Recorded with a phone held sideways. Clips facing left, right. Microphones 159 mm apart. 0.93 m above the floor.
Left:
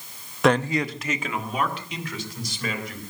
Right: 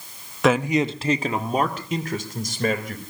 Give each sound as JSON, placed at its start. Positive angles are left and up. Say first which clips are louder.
{"t": 0.4, "sound": "a man speaking", "louder": "right 2 dB", "side_deg": 0, "distance_m": 0.7}